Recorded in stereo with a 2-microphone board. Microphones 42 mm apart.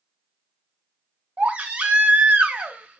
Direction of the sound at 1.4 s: 35° right (ahead or behind).